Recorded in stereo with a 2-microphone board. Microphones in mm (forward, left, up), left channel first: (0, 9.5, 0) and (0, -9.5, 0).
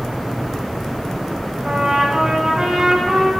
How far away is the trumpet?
About 1.7 m.